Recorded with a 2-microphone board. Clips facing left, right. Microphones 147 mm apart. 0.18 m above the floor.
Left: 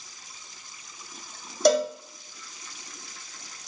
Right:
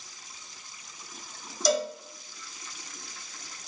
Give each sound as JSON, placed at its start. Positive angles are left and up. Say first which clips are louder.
{"t": 1.6, "sound": "a cowbell", "louder": "left 6 dB", "side_deg": 65, "distance_m": 1.2}